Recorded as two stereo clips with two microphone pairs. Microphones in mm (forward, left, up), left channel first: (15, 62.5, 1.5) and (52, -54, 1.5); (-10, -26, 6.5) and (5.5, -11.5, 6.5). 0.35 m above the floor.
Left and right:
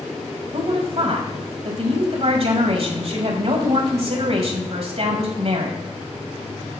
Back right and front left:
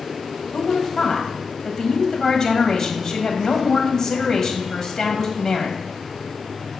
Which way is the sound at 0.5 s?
70° right.